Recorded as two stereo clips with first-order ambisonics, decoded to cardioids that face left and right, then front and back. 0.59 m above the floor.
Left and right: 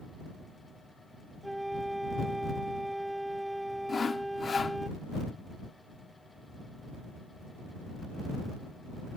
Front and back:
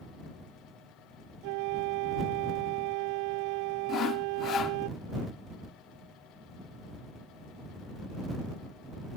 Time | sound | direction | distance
1.4 | a flute | straight behind | ?
3.9 | sawing | 30° left | ?